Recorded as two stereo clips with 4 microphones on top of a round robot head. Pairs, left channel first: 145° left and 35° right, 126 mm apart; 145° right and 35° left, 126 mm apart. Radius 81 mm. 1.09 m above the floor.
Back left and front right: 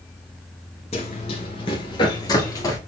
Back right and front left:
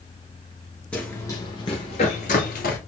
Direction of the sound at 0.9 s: 135° left.